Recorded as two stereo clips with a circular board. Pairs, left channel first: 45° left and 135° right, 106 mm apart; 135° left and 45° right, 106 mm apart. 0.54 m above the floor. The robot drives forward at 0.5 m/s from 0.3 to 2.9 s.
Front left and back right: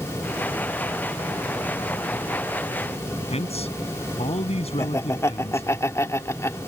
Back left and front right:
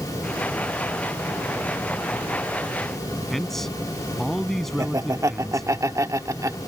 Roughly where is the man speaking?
Ahead left.